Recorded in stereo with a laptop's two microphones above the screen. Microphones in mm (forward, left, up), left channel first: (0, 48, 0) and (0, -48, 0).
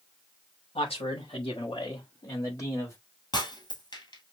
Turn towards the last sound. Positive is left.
turn(degrees=45)  # may be behind; listen again after turning